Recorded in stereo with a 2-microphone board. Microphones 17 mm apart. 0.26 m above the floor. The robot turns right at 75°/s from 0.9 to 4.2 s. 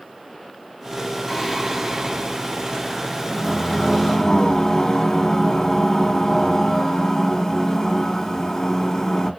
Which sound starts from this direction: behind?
Singing, at 1.3 s.